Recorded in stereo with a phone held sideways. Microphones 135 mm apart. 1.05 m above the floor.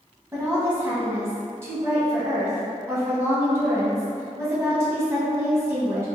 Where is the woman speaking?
20° right (ahead or behind), 1.0 m.